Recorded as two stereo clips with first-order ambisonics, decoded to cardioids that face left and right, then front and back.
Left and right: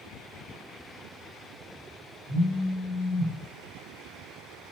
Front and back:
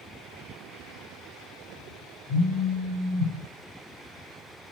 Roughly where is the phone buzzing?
Ahead left.